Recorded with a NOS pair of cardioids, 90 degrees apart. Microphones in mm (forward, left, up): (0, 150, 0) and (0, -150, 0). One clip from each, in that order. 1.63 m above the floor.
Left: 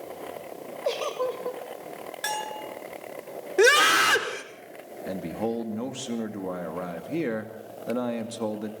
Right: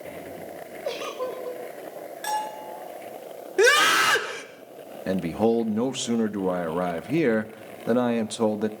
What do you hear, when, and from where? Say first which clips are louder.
0.8 s a giggle: left 3 dB; 25° left, 7 m
2.2 s a bell: right 2 dB; 35° left, 10 m
3.6 s a scream: even; straight ahead, 5.5 m
5.1 s a man speaking: right 7 dB; 45° right, 2.5 m